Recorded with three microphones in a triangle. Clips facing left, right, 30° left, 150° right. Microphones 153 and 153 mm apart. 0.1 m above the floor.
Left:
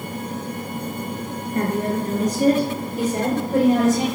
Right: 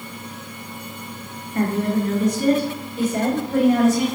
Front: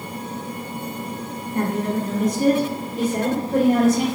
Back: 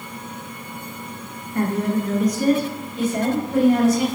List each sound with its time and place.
1.6 s a woman speaking: 90° left, 1.9 m; by 4.0 s 50° left, 2.5 m